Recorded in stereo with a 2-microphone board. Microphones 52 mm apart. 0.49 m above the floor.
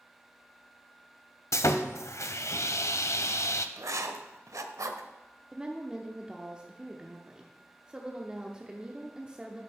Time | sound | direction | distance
1.5 | sawing | 70° left (ahead or behind) | 0.5 m
3.8 | writing | 85° right | 0.7 m
5.5 | a woman speaking | 15° right (ahead or behind) | 0.8 m